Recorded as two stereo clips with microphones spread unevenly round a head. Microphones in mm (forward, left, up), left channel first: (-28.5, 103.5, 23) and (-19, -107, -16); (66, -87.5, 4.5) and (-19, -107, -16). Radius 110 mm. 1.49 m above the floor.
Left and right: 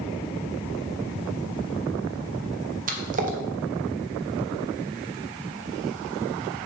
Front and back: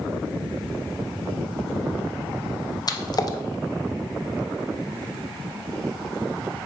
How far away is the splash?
About 0.8 m.